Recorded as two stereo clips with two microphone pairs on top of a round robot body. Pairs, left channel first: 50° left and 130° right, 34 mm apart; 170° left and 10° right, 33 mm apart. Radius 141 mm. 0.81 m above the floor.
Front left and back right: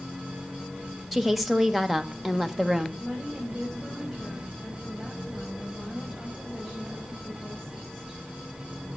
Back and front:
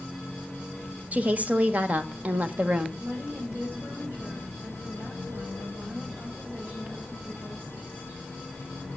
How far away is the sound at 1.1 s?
About 1.5 m.